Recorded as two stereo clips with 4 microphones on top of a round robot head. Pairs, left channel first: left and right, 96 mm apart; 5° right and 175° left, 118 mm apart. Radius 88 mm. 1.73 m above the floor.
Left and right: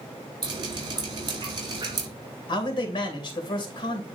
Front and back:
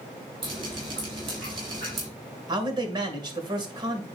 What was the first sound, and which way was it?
Dripping, 130° right.